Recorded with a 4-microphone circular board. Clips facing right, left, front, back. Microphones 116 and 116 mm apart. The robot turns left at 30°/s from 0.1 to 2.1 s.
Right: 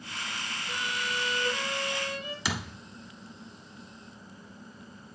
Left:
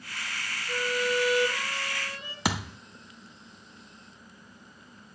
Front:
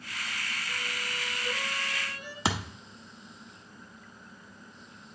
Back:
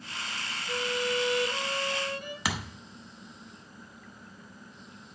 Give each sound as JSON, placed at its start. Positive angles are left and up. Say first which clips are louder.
{"t": 0.7, "sound": "a violin", "louder": "left 8 dB, back 9 dB", "azimuth_deg": -170, "distance_m": 1.4}
{"t": 2.5, "sound": "a thud", "louder": "left 7 dB, front 5 dB", "azimuth_deg": 60, "distance_m": 0.9}